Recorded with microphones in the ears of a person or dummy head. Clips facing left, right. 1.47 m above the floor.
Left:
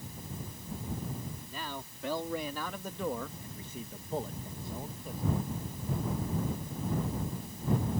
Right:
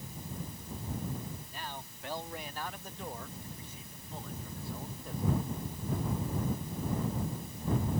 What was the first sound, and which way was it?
A man speaking, 80° left.